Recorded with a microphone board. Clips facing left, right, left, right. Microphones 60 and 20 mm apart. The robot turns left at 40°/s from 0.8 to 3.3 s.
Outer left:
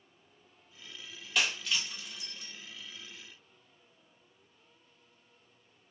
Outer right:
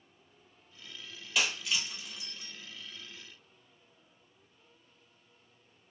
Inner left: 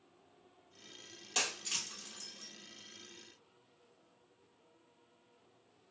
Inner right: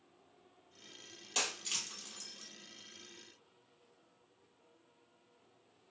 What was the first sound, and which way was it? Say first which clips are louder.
Breaking glass: even, inner left 1 dB; centre (ahead or behind).